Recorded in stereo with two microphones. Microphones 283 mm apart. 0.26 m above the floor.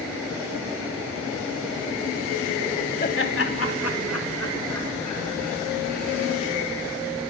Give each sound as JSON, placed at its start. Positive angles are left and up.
{"t": 3.0, "sound": "laughter", "side_deg": 35, "distance_m": 1.1}